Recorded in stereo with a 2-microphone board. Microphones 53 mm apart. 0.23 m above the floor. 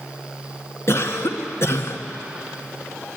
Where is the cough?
55° left (ahead or behind), 2.5 m.